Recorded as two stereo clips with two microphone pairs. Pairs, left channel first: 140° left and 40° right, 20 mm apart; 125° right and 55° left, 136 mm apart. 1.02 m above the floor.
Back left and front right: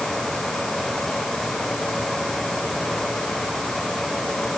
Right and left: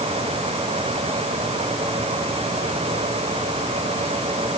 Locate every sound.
Only background noise.